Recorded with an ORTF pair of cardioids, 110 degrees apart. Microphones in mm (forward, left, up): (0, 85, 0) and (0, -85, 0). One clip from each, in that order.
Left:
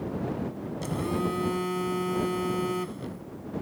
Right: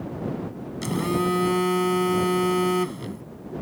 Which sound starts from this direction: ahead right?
A phone buzzing, at 0.8 s.